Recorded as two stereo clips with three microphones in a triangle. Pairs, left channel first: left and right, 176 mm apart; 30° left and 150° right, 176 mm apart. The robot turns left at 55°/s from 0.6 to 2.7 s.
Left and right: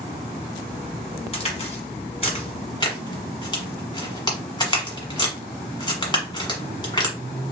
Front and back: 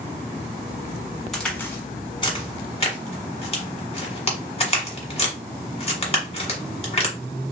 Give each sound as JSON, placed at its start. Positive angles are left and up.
{"t": 1.3, "sound": "a crack", "azimuth_deg": 120, "distance_m": 1.4}